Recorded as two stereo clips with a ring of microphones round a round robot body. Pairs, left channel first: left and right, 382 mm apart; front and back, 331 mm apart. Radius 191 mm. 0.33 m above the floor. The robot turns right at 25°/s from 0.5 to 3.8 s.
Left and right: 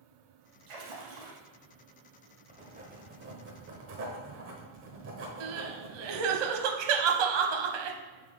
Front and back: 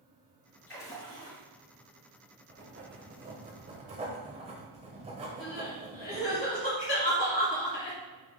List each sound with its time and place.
0.7 s a splash: 85° right, 3 m; by 1.4 s 70° right, 3 m
2.5 s writing: 155° right, 1.2 m; by 6.4 s 120° right, 1.2 m
5.4 s crying: 70° right, 0.8 m